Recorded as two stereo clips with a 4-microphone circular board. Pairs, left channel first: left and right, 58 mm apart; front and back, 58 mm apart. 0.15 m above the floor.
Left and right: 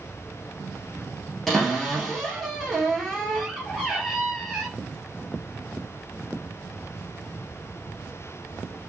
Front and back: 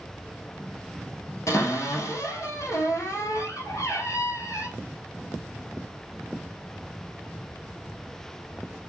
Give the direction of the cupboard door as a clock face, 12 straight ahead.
12 o'clock.